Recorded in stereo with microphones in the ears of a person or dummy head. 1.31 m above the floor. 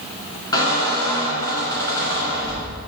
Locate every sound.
0.5 s a squeak: 25° left (ahead or behind), 2 m